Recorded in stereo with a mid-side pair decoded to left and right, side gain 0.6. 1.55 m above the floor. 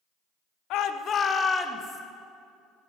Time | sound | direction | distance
0.7 | a shout | 70° left | 0.8 m